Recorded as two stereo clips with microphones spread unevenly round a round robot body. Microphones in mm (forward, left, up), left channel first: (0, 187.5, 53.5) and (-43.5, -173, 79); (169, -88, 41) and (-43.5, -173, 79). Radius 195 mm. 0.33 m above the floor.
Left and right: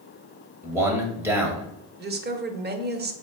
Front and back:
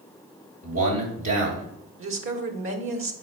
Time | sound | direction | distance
0.6 | a man speaking | straight behind | 2.5 m
2.0 | a woman speaking | 155° right | 1.5 m